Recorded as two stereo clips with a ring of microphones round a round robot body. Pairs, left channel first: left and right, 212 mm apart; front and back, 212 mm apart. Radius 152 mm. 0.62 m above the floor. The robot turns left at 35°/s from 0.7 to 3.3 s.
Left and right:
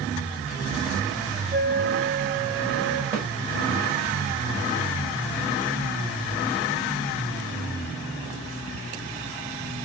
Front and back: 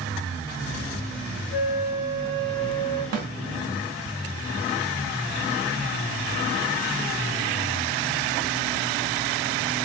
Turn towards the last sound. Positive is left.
turn(degrees=-160)